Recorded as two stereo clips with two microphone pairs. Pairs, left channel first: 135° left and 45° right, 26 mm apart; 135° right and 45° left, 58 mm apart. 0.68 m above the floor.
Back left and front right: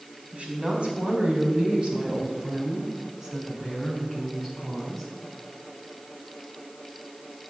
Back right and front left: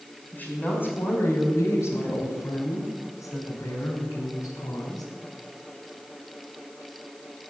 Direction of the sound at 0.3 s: 80° right.